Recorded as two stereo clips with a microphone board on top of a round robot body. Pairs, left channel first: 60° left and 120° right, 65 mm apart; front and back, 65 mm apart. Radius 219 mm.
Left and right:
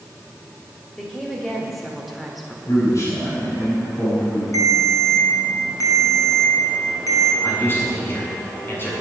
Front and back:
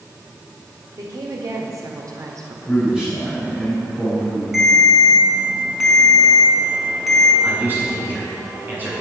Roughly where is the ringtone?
Left.